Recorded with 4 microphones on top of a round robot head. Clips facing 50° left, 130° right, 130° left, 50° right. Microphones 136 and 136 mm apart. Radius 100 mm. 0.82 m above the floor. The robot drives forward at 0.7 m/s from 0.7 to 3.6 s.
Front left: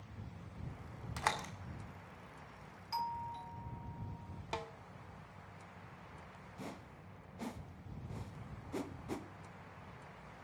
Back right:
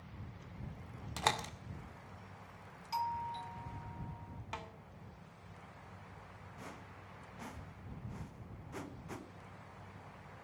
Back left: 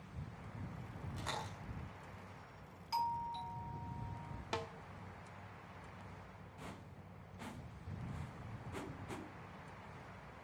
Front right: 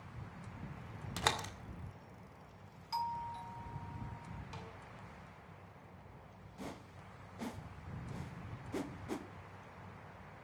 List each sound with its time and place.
1.2 s a door slam: 65° right, 2 m; by 1.5 s 70° right, 2.0 m
2.9 s a doorbell: 175° right, 0.8 m
4.5 s a snare drum: 110° left, 1.1 m
6.6 s a whoosh: 5° right, 1.4 m